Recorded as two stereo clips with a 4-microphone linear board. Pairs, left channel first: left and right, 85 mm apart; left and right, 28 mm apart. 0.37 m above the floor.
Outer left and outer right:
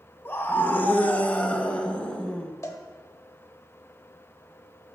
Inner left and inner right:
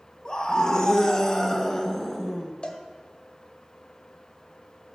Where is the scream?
30° left (ahead or behind), 1.3 m; by 2.5 s 10° left (ahead or behind), 2.5 m.